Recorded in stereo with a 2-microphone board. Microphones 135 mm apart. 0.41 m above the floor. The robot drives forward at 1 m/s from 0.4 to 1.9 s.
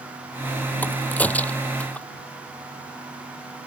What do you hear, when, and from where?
0.8 s a crack: 10° left (ahead or behind)